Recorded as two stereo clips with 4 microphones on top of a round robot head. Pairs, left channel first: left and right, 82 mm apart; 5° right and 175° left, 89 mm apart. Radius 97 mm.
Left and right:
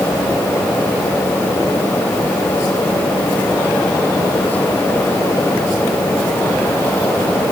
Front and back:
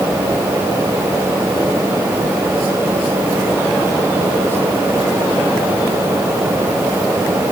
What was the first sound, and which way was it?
Only background noise.